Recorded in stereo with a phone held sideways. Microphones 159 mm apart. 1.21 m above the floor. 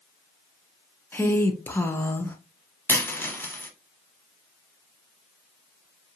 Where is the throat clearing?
I don't hear throat clearing.